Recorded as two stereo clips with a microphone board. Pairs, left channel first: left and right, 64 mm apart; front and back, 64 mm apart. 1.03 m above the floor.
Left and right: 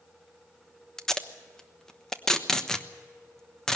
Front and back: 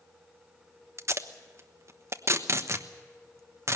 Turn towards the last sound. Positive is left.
turn(degrees=170)